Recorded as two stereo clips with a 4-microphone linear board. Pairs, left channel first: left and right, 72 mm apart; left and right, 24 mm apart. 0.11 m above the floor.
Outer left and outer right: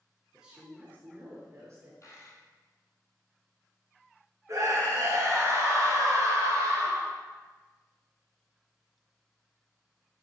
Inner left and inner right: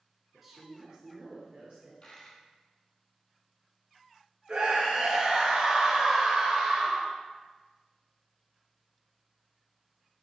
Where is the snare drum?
I don't hear a snare drum.